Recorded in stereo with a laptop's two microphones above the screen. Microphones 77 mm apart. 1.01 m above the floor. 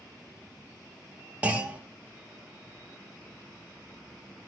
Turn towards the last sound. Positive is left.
turn(degrees=-20)  # may be behind; listen again after turning